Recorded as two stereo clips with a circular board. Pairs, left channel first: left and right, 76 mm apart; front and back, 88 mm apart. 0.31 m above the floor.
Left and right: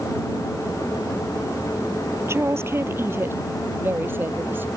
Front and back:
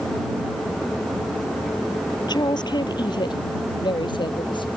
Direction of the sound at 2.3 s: 35° right.